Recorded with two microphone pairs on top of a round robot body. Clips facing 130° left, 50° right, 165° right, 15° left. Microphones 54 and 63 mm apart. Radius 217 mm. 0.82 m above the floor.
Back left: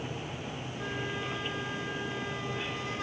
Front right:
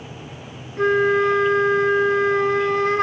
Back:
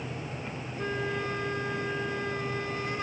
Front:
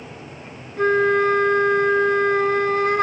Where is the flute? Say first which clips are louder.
Front right 20 dB, front 16 dB; 20° right.